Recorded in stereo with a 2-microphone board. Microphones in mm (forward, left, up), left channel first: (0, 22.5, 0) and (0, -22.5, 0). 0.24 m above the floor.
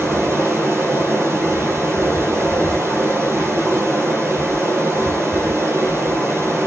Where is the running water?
70° right (ahead or behind), 5 m.